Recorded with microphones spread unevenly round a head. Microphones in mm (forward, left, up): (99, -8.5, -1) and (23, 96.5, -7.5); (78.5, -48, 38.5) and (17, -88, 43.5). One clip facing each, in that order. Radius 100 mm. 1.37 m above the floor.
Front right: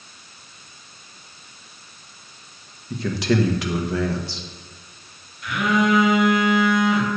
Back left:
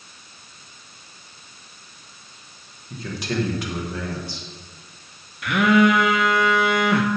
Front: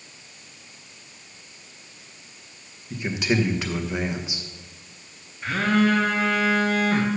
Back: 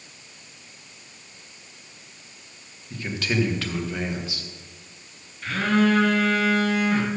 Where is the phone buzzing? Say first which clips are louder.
Back left 4 dB, even; 105° left, 0.8 m.